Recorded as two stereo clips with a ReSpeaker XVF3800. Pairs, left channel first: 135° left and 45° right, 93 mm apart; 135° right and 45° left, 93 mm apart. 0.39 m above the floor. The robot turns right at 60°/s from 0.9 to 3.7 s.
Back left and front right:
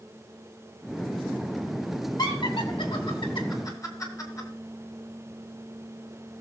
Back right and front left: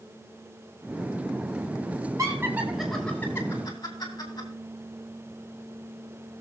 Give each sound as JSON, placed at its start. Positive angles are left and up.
{"t": 2.2, "sound": "laughter", "azimuth_deg": 95, "distance_m": 2.5}